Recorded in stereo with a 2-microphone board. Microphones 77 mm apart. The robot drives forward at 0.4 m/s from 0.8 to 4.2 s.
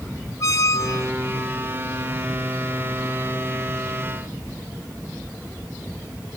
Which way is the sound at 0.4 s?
45° left (ahead or behind).